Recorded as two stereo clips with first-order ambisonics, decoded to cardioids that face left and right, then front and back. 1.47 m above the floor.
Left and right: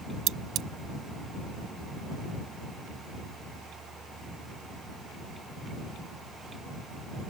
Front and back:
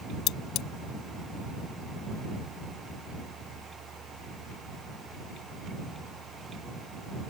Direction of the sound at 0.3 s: 45° right.